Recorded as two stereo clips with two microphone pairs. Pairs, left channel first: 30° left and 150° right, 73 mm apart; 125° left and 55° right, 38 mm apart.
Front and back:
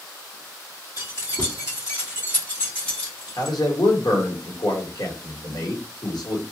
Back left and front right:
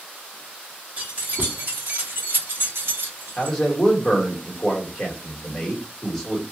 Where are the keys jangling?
5° right, 1.6 m; by 3.6 s 50° right, 1.8 m.